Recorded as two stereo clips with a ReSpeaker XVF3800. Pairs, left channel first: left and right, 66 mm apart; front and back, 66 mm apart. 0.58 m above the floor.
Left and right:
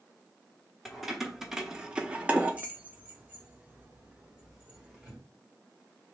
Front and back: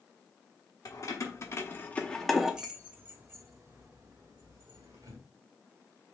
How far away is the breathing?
No breathing in this recording.